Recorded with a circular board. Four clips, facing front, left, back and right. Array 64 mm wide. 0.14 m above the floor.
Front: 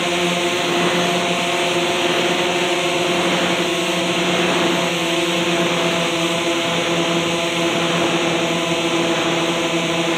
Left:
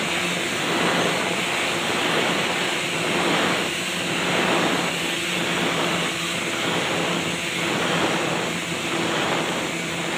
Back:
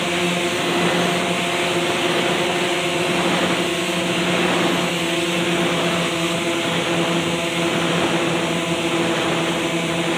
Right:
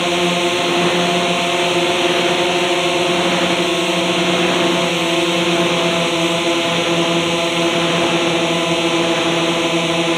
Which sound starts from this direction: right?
A drone, at 0.0 s.